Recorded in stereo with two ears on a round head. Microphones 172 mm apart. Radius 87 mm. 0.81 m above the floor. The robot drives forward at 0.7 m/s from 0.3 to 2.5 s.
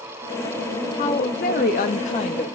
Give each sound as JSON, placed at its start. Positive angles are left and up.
{"t": 1.0, "sound": "a woman speaking", "side_deg": 30, "distance_m": 0.8}